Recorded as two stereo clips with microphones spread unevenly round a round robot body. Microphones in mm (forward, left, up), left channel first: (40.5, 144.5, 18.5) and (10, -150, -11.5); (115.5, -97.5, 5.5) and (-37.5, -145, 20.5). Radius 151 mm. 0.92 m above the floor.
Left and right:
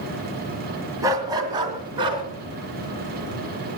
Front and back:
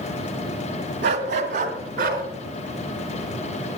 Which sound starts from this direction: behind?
A dog barking, at 1.0 s.